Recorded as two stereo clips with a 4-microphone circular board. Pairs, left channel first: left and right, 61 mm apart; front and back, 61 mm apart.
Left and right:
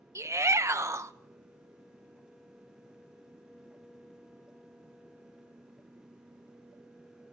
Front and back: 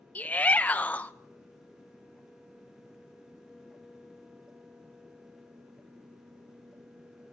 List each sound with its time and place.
0.1 s a shout: 60° right, 1.1 m